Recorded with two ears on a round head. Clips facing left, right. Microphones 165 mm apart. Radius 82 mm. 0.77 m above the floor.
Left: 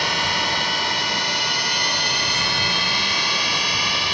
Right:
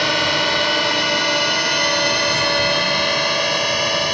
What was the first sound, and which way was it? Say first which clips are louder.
A drone: right 6 dB; 65° right (ahead or behind).